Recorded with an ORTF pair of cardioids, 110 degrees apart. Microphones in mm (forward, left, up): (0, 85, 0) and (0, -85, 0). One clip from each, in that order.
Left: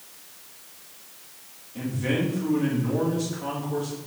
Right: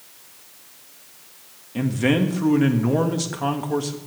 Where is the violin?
I don't hear a violin.